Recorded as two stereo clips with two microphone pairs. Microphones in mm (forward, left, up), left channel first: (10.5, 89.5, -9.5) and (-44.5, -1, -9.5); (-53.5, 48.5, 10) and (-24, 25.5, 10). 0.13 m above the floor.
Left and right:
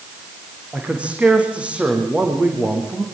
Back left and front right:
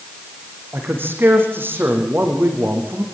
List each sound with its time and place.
0.7 s a man speaking: 40° right, 7 m